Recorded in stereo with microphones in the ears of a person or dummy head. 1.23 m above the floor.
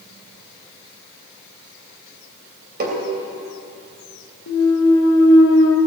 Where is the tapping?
55° right (ahead or behind), 3 m.